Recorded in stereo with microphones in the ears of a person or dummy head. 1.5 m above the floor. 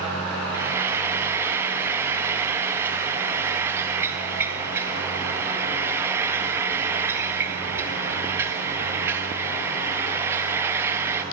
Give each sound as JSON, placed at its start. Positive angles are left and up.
{"t": 0.5, "sound": "frying", "side_deg": -15, "distance_m": 1.7}